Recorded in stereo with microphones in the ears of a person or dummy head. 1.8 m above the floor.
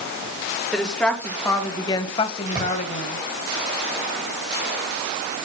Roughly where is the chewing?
I don't hear chewing.